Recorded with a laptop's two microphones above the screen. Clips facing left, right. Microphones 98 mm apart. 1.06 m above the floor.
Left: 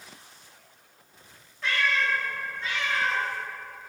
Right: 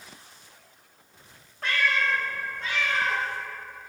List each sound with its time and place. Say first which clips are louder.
1.6 s a cat meowing: right 1 dB; 50° right (ahead or behind), 0.7 m; by 3.2 s 40° right (ahead or behind), 2.0 m